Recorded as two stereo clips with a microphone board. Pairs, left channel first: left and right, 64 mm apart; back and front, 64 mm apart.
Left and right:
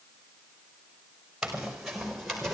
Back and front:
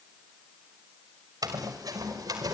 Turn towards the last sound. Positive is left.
turn(degrees=0)